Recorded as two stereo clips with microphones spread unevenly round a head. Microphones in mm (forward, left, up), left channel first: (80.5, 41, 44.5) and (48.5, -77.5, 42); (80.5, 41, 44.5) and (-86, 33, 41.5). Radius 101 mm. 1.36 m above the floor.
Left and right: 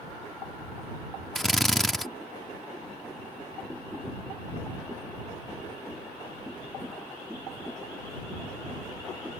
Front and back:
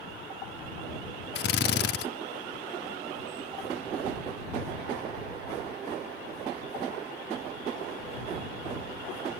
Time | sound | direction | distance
1.4 | a drill | 15° right | ?